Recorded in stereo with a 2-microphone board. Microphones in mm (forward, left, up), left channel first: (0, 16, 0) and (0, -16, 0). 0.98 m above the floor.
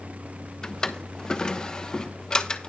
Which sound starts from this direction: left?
A drawer, at 0.6 s.